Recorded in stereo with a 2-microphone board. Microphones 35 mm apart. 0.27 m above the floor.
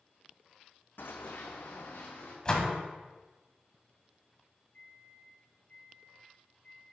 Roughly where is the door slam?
Left.